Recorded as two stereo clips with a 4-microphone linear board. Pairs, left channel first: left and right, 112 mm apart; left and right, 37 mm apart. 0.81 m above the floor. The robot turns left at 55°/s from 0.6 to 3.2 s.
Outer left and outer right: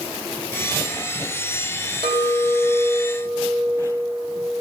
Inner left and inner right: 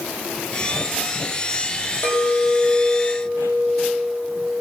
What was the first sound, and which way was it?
A clink, 60° left.